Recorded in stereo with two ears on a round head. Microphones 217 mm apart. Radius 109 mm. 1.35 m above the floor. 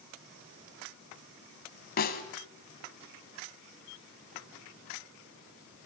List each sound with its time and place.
2.0 s a snare drum: 40° left (ahead or behind), 2 m